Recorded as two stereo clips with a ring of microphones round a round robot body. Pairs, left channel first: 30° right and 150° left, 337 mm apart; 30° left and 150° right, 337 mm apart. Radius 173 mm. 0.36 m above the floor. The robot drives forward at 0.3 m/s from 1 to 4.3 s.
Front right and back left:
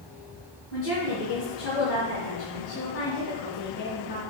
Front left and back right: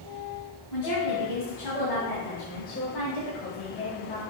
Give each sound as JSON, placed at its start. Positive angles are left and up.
{"t": 0.7, "sound": "a woman speaking", "azimuth_deg": 15, "distance_m": 3.0}